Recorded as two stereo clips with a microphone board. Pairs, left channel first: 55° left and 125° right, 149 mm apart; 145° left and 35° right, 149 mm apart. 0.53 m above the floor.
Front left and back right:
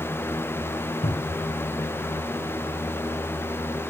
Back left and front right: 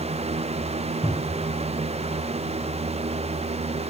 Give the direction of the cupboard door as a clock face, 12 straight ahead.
11 o'clock.